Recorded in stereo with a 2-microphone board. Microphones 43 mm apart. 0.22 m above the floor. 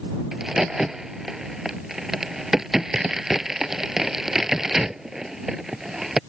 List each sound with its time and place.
0.3 s a crack: 10° right (ahead or behind)